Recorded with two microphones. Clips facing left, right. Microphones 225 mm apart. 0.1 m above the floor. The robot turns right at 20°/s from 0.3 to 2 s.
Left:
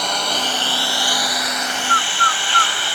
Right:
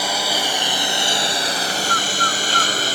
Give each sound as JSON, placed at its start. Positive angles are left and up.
{"t": 0.0, "sound": "a lawn mower", "azimuth_deg": -175}
{"t": 1.9, "sound": "a bird", "side_deg": -25}